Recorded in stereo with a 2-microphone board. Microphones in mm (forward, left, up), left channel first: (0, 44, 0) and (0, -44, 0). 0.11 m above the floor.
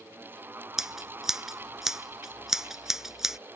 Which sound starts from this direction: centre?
Scissors, at 0.8 s.